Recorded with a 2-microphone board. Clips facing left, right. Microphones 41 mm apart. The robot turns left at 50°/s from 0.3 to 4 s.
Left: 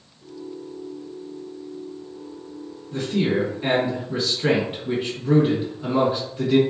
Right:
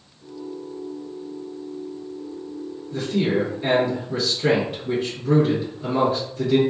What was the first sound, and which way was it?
A man speaking, 90° left.